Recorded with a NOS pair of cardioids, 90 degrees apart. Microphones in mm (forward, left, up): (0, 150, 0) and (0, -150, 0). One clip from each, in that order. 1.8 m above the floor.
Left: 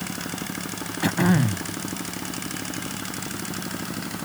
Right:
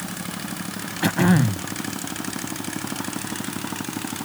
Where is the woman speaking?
No woman speaking in this recording.